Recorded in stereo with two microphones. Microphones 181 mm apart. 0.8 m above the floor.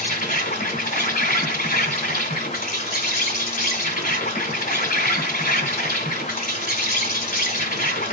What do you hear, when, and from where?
0.0 s an insect: 55° left (ahead or behind), 1.9 m